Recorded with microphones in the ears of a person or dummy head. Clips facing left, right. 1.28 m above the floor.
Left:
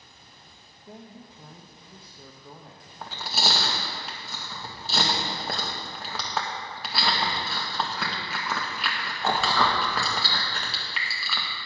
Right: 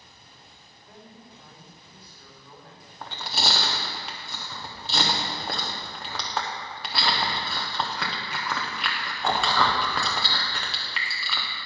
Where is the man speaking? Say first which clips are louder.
Left 4 dB; 25° left (ahead or behind), 0.6 m.